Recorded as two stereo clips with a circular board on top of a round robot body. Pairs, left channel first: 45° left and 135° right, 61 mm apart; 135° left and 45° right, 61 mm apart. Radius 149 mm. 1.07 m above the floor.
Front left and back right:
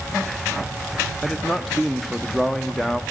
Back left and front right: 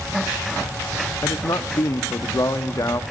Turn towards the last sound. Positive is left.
turn(degrees=130)